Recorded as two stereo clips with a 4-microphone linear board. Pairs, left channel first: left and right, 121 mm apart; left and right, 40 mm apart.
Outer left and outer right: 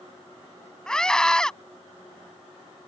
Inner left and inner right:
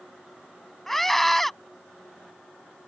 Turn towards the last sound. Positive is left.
turn(degrees=5)  # may be behind; listen again after turning